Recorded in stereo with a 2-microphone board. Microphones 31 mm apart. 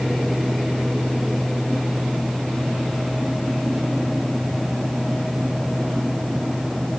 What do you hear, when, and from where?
Only background noise.